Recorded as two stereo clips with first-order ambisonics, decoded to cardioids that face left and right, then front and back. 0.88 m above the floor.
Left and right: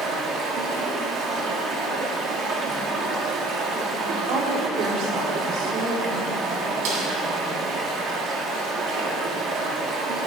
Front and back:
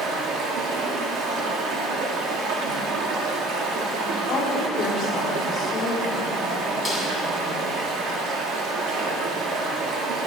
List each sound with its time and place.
0.0 s running water: 140° right, 1.2 m
4.3 s a woman speaking: 60° right, 1.8 m
6.8 s a snare drum: 95° right, 3 m